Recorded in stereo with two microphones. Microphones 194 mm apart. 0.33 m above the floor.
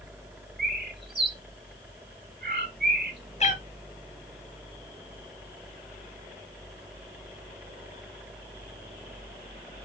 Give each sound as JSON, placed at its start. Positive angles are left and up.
{"t": 0.6, "sound": "a bird", "side_deg": -60, "distance_m": 1.0}
{"t": 3.4, "sound": "a cat meowing", "side_deg": 35, "distance_m": 0.7}